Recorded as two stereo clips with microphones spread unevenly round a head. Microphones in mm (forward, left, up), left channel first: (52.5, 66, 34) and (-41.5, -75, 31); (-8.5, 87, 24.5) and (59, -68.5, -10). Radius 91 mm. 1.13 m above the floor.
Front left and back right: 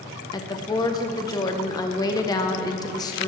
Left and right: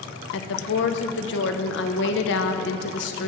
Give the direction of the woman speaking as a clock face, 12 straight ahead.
8 o'clock.